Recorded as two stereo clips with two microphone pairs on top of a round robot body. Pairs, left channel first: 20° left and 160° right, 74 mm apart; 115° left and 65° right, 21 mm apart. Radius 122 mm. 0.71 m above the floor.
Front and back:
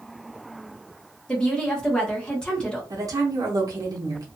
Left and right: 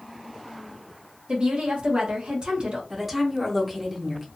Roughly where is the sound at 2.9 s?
Behind right.